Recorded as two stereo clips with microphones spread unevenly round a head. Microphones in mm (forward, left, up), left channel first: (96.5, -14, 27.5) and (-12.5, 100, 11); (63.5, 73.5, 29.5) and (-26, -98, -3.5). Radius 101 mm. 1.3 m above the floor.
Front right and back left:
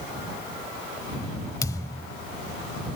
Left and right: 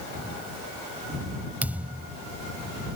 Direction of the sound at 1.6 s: 25° right.